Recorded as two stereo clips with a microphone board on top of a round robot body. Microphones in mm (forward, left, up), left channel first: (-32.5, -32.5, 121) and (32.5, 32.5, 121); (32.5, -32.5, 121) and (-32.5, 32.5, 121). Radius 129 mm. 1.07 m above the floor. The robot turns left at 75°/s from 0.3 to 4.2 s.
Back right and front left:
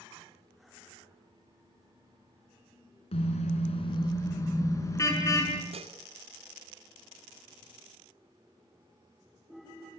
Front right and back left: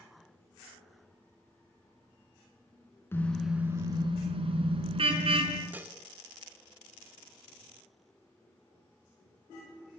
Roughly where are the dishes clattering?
Ahead left.